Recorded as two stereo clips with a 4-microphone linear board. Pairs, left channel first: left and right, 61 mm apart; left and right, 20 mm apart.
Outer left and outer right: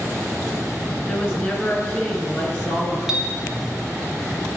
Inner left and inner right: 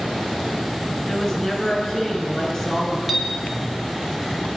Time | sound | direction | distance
1.1 | a woman speaking | 15° left (ahead or behind) | 2 m
3.1 | a clink | 10° right (ahead or behind) | 0.6 m